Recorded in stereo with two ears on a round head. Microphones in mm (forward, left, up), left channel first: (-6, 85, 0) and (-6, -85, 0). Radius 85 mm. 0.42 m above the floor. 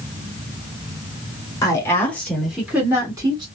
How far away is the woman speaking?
About 1.2 m.